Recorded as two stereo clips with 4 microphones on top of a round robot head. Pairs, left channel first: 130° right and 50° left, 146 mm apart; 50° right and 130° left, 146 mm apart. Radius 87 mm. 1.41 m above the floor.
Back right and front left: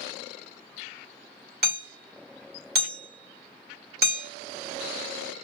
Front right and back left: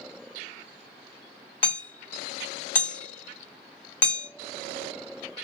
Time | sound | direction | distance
1.6 | hammering | 25° left | 1.6 m